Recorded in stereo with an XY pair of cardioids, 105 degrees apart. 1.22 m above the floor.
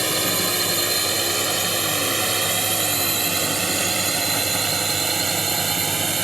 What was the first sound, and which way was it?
A drone, 15° right.